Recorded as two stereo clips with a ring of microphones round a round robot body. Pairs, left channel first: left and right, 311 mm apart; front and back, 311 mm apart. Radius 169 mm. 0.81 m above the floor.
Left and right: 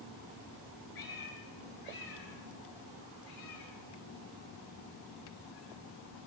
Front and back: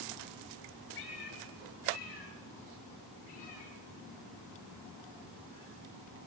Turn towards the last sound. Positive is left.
turn(degrees=75)